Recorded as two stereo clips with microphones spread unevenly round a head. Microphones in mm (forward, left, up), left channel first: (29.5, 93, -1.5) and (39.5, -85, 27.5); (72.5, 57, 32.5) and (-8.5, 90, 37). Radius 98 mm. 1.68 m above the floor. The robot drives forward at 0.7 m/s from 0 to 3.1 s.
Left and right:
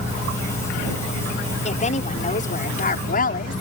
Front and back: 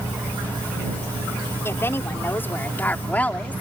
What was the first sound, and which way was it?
A woman speaking, 40° left.